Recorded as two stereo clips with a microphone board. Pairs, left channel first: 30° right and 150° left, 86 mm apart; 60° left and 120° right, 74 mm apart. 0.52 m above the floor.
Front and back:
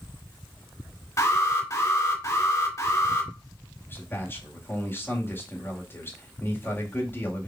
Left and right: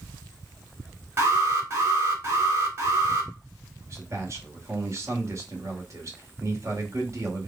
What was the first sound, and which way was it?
An alarm, 70° right.